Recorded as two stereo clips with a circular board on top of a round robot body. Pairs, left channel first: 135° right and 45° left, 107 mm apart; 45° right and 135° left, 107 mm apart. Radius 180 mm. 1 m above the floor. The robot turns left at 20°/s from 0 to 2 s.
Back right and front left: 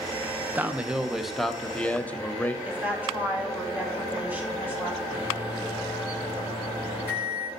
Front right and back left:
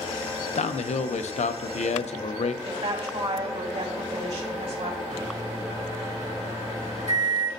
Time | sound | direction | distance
0.6 | a man speaking | 30° right | 0.6 m
2.6 | a woman speaking | 120° left | 2.5 m
5.1 | a microwave | 115° left | 3 m